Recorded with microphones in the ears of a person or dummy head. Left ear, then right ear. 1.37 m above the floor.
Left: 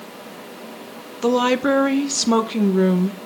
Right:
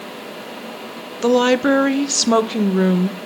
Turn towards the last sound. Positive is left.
turn(degrees=-10)  # may be behind; listen again after turning